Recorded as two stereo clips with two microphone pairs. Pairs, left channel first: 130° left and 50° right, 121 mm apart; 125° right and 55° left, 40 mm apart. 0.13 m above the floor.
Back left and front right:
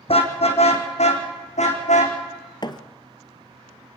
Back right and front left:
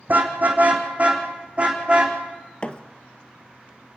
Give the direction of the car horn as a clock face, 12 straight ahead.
9 o'clock.